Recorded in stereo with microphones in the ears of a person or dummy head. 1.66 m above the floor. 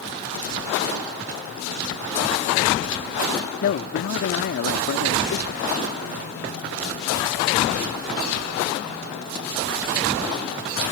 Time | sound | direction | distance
3.6 | a man speaking | 55° left (ahead or behind) | ?